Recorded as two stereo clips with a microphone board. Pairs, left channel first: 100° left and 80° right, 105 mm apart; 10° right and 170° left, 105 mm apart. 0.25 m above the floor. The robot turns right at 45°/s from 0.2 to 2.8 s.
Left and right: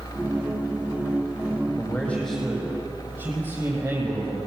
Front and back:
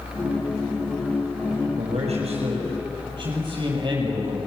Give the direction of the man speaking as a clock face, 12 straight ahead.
6 o'clock.